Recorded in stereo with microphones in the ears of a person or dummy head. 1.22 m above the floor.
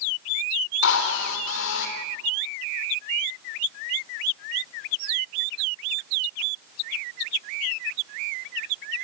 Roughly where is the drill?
Left.